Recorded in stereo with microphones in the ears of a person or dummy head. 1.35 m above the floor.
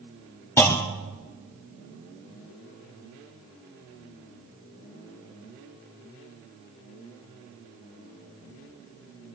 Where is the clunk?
15° left (ahead or behind), 0.7 m.